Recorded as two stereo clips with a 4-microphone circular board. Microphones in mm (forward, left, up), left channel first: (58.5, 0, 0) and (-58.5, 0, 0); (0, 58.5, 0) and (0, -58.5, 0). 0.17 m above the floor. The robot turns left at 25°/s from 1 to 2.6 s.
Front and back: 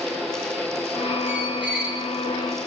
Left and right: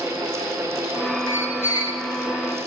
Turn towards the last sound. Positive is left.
turn(degrees=80)